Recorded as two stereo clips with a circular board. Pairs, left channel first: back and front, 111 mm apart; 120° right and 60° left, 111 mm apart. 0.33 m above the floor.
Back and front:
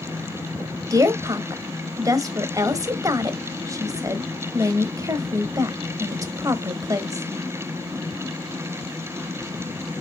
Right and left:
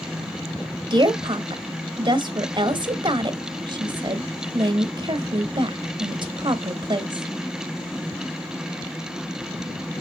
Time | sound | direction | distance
0.9 | a woman speaking | 45° left | 1.3 m